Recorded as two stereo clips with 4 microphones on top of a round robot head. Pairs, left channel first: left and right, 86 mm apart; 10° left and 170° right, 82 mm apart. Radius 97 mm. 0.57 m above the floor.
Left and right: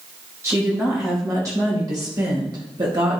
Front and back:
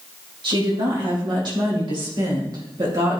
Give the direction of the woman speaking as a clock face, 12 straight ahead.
5 o'clock.